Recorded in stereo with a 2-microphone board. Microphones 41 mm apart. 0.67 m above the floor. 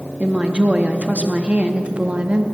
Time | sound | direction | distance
0.2 | a woman speaking | 35° right (ahead or behind) | 0.8 m